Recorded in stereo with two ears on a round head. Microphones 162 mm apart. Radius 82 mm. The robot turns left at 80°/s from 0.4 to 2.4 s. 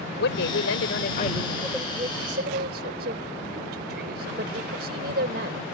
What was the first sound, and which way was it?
A woman speaking, 105° left.